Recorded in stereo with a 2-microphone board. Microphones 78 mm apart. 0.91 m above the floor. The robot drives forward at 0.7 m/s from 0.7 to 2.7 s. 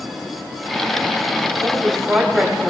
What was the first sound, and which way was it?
A woman speaking, centre (ahead or behind).